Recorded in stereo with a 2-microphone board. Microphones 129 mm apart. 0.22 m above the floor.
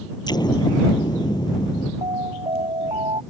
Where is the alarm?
45° right (ahead or behind).